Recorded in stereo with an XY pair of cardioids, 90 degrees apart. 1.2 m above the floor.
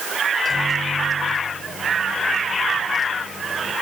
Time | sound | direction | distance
0.3 | a microwave | 45° left | 3 m